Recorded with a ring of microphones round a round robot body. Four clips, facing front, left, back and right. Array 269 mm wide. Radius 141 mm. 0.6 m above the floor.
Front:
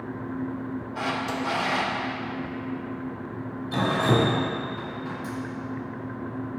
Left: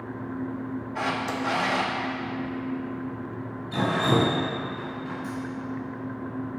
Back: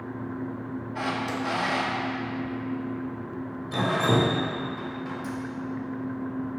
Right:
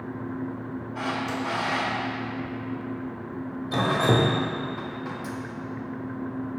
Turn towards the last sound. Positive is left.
turn(degrees=-90)